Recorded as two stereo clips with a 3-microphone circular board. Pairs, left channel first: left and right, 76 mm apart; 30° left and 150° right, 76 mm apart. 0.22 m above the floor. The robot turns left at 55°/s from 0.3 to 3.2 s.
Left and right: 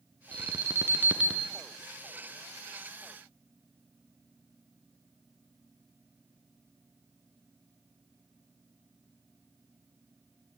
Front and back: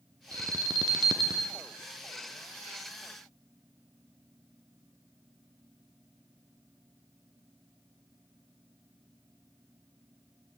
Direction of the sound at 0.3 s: 110° right.